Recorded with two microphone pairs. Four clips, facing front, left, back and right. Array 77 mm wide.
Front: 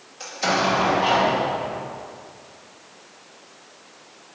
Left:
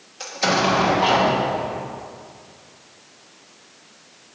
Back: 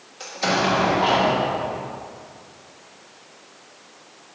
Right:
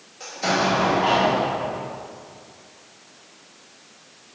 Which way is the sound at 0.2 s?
90° left.